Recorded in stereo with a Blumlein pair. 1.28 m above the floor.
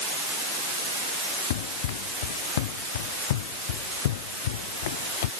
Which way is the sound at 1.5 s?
55° left.